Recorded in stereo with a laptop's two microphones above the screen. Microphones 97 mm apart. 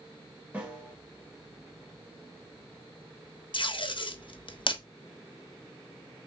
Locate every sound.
0.5 s a snare drum: 15° right (ahead or behind), 1.2 m
3.5 s tape being pulled: 55° left (ahead or behind), 0.8 m